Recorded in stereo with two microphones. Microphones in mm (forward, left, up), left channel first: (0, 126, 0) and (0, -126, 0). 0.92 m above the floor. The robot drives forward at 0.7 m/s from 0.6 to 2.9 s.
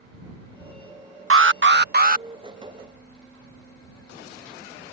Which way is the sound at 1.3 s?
60° right (ahead or behind).